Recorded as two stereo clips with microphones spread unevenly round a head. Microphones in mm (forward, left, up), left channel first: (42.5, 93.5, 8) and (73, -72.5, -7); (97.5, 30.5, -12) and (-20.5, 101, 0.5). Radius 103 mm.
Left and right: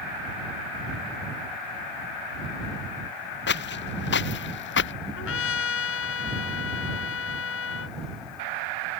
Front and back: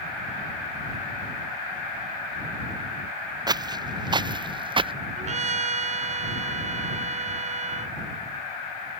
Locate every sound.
3.5 s footsteps: 90° left; by 5.0 s 100° left
5.2 s a trumpet: 115° left